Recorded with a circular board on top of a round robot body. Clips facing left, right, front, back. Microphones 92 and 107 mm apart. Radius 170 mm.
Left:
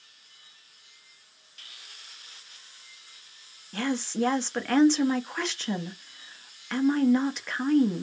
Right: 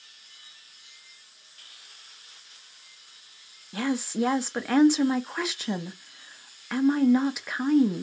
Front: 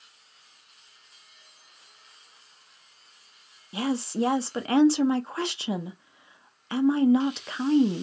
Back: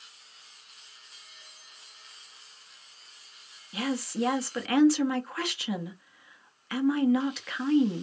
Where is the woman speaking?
15° right, 0.7 m.